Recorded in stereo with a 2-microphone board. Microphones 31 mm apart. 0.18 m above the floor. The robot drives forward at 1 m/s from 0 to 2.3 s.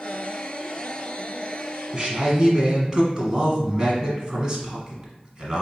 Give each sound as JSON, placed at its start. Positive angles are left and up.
{"t": 1.9, "sound": "a man speaking", "side_deg": -20, "distance_m": 1.5}